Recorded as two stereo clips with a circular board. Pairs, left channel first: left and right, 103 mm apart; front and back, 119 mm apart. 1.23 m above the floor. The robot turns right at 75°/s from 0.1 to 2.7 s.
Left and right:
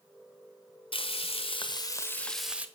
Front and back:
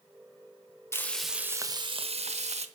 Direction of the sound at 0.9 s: 65° left.